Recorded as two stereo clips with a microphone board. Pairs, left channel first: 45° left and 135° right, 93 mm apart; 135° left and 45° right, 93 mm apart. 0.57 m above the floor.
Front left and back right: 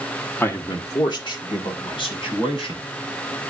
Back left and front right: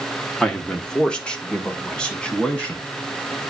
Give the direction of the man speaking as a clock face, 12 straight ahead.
10 o'clock.